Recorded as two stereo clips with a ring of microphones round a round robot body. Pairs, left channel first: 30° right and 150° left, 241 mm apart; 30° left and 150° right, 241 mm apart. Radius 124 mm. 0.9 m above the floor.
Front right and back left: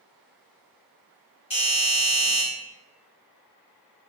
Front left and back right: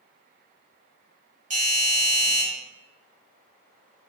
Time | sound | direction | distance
1.5 | a doorbell | 95° right | 1.6 m